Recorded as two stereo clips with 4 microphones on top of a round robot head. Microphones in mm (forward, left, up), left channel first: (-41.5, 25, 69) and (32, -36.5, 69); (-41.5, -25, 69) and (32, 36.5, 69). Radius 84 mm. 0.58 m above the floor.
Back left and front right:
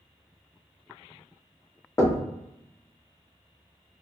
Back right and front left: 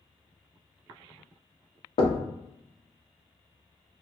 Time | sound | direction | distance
2.0 | knocking | 160° right | 0.6 m